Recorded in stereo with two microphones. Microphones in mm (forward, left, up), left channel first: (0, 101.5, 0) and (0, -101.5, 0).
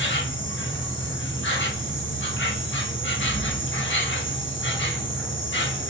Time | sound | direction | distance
0.0 | an insect | 70° left (ahead or behind) | 0.8 m